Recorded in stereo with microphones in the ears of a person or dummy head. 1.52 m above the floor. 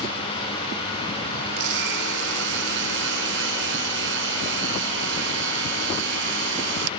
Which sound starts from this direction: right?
A blender, at 1.6 s.